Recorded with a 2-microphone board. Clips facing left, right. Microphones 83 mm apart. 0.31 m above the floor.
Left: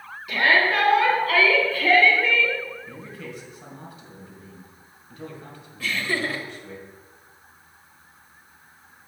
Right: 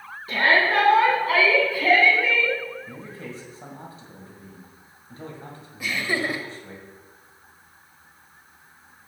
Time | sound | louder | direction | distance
0.3 | a shout | even | 35° right (ahead or behind) | 3 m
2.9 | a man speaking | even | 35° right (ahead or behind) | 1.9 m
5.8 | laughter | even | 15° right (ahead or behind) | 1.0 m